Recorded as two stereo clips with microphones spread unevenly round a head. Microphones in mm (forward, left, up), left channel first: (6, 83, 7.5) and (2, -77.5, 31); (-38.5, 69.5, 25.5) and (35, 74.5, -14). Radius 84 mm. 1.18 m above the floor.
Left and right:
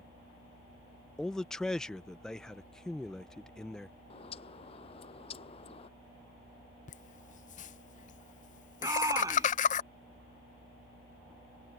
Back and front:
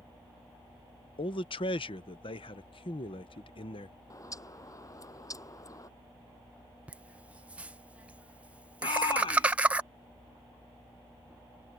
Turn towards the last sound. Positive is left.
turn(degrees=-160)